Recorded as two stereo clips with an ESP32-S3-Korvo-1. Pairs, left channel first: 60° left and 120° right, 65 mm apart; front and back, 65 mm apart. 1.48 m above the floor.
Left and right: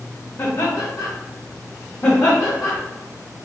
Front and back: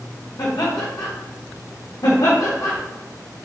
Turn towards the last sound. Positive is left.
turn(degrees=10)